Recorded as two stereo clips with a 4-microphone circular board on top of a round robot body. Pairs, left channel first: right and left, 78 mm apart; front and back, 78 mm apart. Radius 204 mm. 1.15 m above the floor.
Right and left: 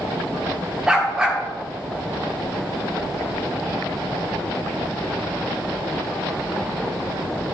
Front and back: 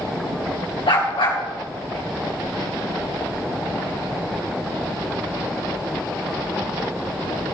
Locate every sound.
0.9 s a dog barking: 10° left, 1.6 m